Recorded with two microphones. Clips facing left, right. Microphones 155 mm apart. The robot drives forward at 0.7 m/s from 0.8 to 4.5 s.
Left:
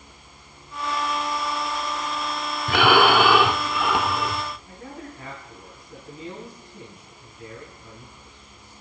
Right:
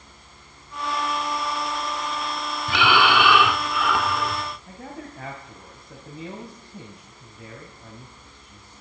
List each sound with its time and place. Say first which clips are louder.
2.7 s breathing: left 3 dB; 50° left (ahead or behind), 0.5 m; by 4.4 s 20° left (ahead or behind), 1.3 m
4.7 s a man speaking: right 1 dB; 75° right (ahead or behind), 3 m